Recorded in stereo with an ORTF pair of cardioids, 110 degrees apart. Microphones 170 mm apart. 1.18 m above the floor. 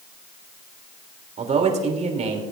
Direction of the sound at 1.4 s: 45° right.